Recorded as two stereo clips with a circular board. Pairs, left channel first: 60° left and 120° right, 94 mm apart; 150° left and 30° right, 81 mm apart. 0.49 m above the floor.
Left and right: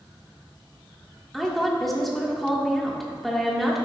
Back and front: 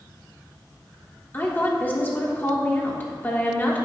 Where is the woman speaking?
145° left, 1.2 m.